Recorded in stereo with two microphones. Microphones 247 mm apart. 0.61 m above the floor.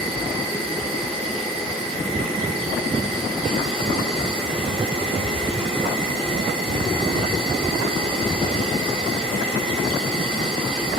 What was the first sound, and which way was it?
An insect, 20° right (ahead or behind).